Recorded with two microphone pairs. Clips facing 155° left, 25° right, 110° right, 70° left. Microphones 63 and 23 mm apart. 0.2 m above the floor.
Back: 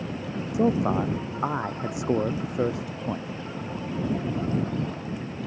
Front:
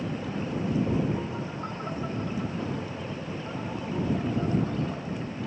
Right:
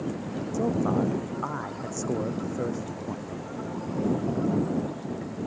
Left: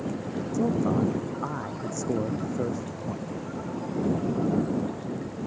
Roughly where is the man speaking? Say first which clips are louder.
Back 5 dB, even; behind.